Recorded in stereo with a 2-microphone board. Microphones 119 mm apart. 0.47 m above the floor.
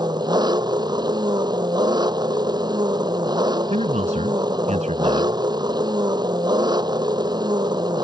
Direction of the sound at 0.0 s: 35° right (ahead or behind).